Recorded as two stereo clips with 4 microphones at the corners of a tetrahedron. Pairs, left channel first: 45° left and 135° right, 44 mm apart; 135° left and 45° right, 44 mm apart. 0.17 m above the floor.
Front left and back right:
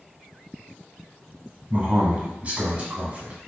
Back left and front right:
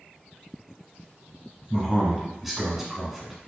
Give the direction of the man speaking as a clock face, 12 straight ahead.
4 o'clock.